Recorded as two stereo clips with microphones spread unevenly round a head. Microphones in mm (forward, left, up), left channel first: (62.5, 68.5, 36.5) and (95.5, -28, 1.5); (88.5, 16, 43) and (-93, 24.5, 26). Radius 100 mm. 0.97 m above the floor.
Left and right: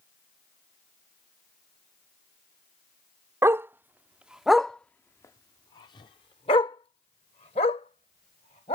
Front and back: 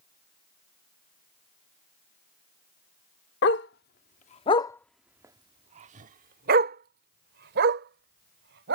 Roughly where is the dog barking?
Ahead.